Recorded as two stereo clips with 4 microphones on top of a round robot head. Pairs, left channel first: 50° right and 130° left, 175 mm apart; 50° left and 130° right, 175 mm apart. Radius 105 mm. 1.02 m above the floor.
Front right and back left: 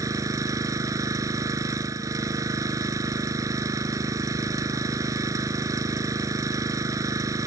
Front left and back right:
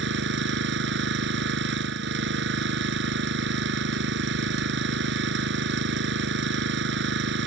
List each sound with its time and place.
0.0 s an engine running: 155° right